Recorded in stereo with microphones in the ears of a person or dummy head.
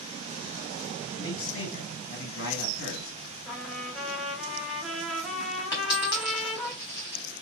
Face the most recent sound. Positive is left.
turn(degrees=20)  # may be behind; listen again after turning